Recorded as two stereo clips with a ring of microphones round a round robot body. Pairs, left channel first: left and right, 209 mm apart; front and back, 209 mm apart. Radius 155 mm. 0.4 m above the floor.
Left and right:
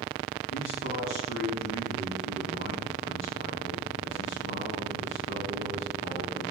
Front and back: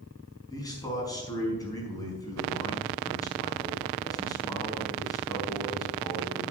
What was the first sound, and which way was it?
A man speaking, 70° left.